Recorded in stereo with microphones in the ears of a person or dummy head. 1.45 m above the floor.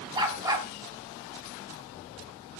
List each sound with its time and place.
0.1 s a dog barking: 20° right (ahead or behind), 4 m